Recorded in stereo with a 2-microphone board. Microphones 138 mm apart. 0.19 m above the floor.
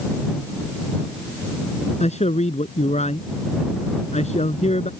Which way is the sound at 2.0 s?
55° left (ahead or behind).